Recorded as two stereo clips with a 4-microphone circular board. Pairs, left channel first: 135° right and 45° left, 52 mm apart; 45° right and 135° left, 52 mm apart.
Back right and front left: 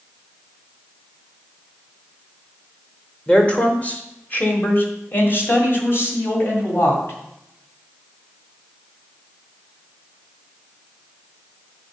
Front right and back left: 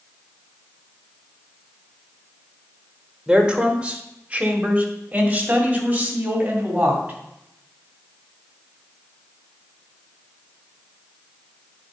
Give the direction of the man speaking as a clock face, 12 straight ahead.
6 o'clock.